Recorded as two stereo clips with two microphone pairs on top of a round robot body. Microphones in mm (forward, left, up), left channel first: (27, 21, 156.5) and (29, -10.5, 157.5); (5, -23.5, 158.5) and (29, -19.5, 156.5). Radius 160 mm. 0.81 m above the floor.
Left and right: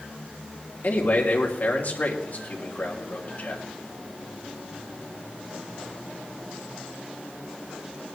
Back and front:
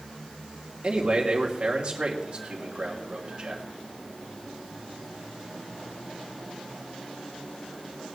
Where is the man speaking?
65° left, 3 m.